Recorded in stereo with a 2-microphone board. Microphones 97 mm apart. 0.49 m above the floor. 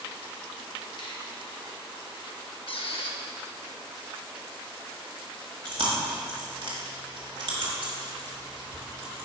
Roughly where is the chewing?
Right.